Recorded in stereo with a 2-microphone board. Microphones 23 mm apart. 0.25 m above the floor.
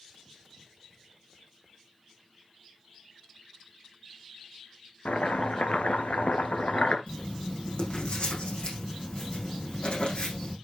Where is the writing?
50° left (ahead or behind), 6 m.